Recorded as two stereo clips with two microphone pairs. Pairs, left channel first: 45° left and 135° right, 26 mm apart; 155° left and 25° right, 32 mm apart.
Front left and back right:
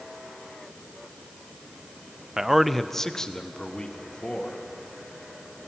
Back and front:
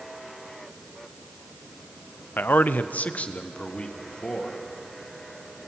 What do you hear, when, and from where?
2.4 s a man speaking: 155° left, 0.7 m; by 4.6 s 95° left, 2 m